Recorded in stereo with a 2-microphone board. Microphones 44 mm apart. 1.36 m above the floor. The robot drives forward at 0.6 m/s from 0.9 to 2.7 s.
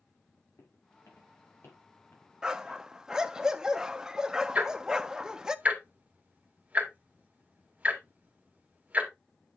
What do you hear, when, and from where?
0.6 s footsteps: 75° left (ahead or behind), 6 m; by 3.4 s 55° left (ahead or behind), 6.5 m
2.4 s a dog barking: 15° right (ahead or behind), 0.8 m
4.5 s ticking: 30° right (ahead or behind), 2.5 m